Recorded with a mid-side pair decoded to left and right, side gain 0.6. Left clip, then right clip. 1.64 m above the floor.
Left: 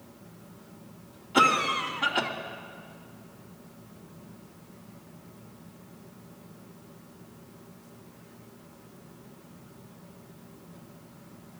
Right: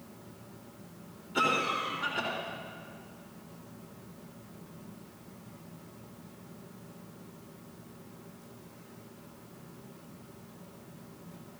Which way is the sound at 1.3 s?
65° left.